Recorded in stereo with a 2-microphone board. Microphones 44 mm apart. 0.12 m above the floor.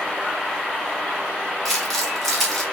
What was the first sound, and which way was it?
Crumpling, 5° right (ahead or behind).